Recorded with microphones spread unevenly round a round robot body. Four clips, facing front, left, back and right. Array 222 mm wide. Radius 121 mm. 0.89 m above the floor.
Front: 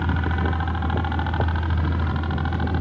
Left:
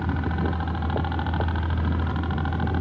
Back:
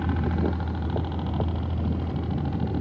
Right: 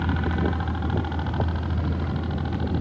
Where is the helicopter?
5° right; by 2.8 s 30° left.